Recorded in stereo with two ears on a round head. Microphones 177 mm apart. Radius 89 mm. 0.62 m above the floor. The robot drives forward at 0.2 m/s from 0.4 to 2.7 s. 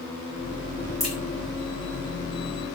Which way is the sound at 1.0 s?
Centre (ahead or behind).